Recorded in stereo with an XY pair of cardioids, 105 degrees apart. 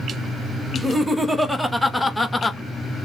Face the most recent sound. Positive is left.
turn(degrees=25)